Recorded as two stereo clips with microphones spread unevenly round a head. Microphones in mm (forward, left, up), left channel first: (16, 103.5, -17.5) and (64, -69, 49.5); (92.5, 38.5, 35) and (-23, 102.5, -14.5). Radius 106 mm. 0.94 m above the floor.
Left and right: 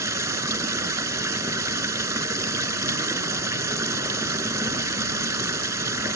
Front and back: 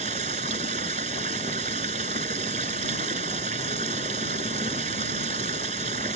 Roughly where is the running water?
Behind right.